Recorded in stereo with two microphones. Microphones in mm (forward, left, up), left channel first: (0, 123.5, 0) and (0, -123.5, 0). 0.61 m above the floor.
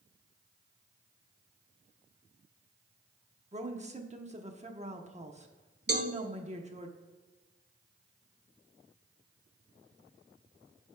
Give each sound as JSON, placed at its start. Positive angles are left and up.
{"t": 3.5, "sound": "a woman speaking", "side_deg": -25, "distance_m": 0.9}
{"t": 5.9, "sound": "a cowbell", "side_deg": -45, "distance_m": 0.8}